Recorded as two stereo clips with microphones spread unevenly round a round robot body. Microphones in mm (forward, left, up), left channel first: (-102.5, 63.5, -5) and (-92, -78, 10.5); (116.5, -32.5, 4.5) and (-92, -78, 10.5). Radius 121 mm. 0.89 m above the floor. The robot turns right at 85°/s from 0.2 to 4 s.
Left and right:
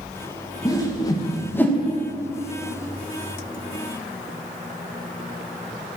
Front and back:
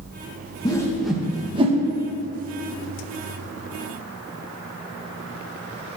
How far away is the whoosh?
About 1.0 m.